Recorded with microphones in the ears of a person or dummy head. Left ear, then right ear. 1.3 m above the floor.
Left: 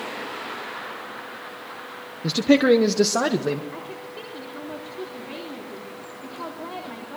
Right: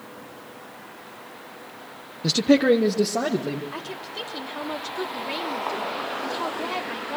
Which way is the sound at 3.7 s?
70° right (ahead or behind).